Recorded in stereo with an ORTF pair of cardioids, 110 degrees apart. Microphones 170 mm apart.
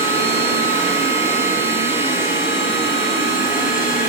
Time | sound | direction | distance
0.0 | a machine running | 15° right | 2 m